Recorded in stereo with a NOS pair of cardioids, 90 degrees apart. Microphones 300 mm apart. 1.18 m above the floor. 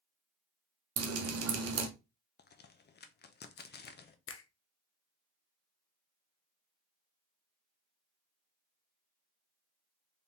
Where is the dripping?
55° right, 1.0 m.